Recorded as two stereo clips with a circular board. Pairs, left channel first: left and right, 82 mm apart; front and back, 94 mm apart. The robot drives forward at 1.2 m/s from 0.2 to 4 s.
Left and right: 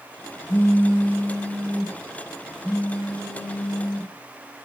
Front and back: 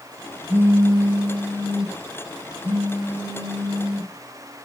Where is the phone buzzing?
120° left, 1.0 m; by 4.1 s 170° left, 4.5 m.